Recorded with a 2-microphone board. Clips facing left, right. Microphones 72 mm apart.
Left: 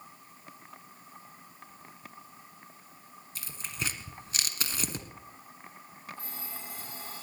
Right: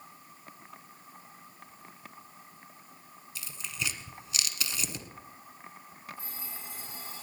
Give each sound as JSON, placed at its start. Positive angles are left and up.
{"t": 3.4, "sound": "tearing paper", "side_deg": 40, "distance_m": 1.4}
{"t": 6.2, "sound": "an alarm clock", "side_deg": 50, "distance_m": 9.5}